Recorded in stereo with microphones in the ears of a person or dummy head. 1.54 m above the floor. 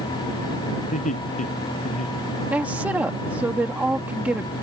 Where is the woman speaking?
5° right (ahead or behind).